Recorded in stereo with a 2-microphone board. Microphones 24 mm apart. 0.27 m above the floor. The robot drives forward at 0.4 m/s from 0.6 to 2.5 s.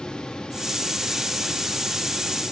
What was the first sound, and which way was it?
Only background noise.